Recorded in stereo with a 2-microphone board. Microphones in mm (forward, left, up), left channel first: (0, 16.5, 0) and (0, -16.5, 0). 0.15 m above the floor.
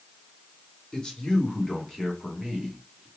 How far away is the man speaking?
About 1.5 m.